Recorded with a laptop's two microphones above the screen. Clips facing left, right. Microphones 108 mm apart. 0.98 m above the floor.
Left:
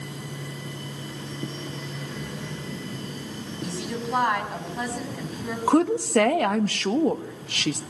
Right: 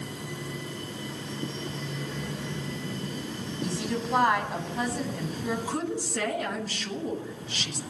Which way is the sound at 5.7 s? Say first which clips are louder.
Left 11 dB; 70° left (ahead or behind).